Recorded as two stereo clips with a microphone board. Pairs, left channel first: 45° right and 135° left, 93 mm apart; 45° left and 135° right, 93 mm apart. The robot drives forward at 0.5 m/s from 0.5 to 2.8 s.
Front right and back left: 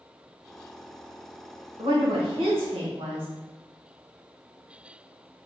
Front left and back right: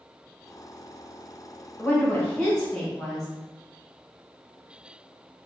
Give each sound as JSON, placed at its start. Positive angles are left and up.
{"t": 1.8, "sound": "a woman speaking", "azimuth_deg": 110, "distance_m": 1.2}